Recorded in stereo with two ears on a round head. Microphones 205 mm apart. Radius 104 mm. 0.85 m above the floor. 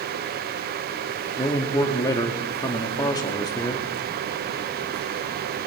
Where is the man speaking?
15° left (ahead or behind), 1.4 m.